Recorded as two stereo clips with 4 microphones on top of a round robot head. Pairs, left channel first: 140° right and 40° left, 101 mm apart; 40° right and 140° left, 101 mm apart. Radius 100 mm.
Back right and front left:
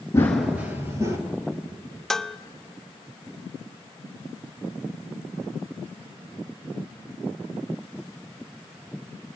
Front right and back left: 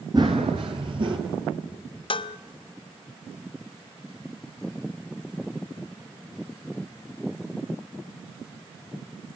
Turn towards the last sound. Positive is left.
turn(degrees=-55)